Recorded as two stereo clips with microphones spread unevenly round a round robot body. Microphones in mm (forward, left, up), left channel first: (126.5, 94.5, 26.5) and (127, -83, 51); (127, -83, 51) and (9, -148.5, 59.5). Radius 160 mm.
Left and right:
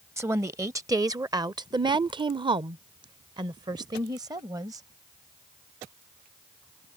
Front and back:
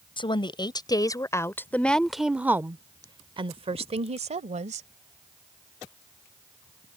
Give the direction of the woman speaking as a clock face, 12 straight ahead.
12 o'clock.